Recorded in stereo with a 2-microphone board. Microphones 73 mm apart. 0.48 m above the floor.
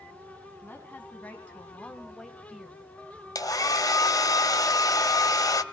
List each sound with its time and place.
0.6 s a woman speaking: 25° left (ahead or behind), 4.5 m; by 2.9 s 5° right (ahead or behind), 2.5 m
3.4 s a hair dryer: 55° left (ahead or behind), 1.4 m